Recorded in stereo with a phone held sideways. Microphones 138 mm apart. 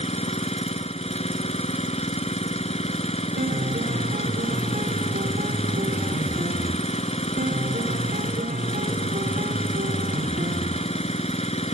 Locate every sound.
0.0 s an engine running: 50° left (ahead or behind)
3.4 s a piano: 80° right